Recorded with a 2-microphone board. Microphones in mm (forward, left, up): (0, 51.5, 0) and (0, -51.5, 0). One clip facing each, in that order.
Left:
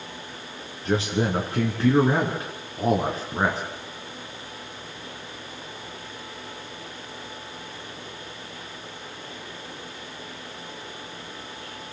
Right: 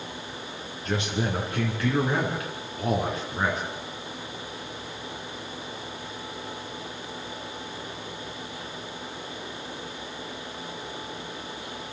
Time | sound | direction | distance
0.8 | a man speaking | 30° left (ahead or behind) | 2.5 m